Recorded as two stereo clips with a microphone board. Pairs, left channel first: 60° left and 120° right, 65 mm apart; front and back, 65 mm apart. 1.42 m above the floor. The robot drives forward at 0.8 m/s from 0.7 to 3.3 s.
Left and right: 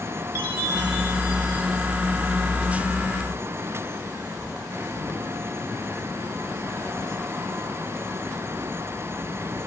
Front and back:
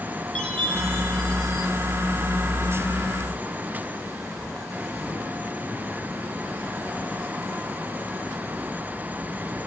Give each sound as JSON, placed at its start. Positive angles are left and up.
{"t": 0.3, "sound": "a chime", "azimuth_deg": 75, "distance_m": 3.5}